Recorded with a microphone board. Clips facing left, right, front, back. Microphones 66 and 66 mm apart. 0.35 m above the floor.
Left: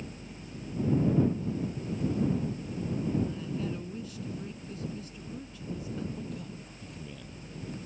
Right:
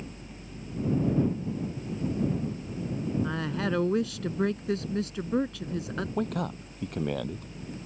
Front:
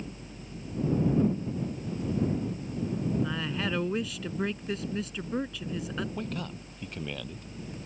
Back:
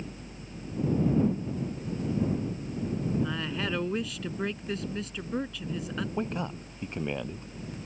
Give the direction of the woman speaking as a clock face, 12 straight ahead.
3 o'clock.